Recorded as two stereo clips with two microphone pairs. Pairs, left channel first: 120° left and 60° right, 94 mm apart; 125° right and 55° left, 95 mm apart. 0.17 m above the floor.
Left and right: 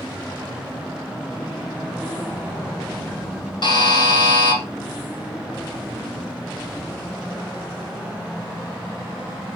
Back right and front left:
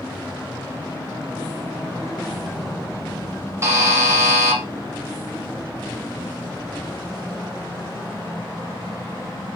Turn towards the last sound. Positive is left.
turn(degrees=110)